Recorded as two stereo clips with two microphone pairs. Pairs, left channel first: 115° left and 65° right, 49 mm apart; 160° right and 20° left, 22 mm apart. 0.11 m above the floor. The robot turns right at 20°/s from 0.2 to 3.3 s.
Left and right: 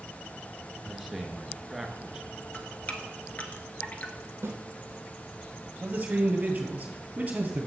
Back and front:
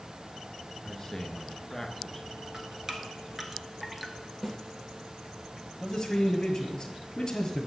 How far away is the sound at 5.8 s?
About 1.9 m.